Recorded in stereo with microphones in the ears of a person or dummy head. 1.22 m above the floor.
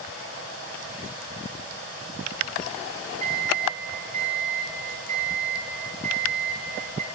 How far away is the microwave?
About 8 m.